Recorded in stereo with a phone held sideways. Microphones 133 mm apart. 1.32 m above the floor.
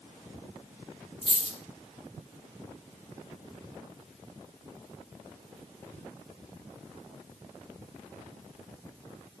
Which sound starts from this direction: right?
A dropped coin, at 1.2 s.